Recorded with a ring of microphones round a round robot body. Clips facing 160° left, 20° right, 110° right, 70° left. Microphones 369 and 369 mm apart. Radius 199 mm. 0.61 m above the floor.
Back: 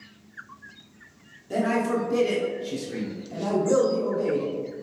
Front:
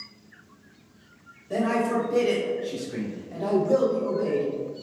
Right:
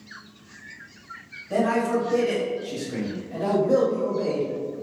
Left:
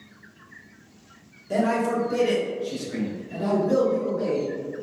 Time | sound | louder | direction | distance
1.5 | a man speaking | even, right 1 dB | 95° left | 1.5 m